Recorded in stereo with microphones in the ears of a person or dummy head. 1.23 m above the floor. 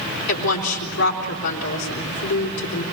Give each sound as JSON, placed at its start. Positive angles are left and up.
{"t": 0.3, "sound": "a woman speaking", "side_deg": 80, "distance_m": 4.0}